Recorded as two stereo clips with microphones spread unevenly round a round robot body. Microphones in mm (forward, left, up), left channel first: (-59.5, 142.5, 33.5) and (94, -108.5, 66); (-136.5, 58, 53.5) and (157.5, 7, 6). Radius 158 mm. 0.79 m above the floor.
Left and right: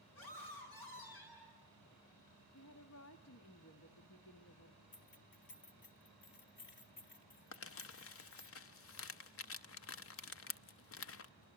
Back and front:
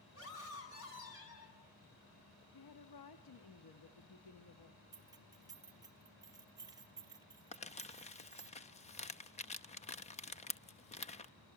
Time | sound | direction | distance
0.1 | a scream | 125° left | 9 m
2.5 | a woman speaking | 155° left | 1.3 m
4.9 | keys jangling | 70° left | 1.3 m
7.5 | crumpling | 100° left | 0.9 m